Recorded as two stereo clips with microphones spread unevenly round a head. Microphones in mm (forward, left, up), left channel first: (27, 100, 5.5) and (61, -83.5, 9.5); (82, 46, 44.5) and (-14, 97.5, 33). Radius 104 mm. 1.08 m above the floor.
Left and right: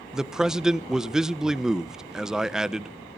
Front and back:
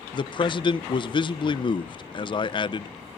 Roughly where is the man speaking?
Ahead.